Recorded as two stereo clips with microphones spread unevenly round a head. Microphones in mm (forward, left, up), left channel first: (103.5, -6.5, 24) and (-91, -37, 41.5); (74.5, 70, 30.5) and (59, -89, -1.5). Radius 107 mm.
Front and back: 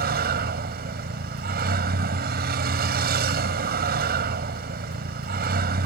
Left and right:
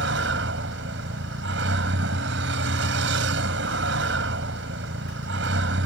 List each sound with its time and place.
0.0 s a vehicle: 130° right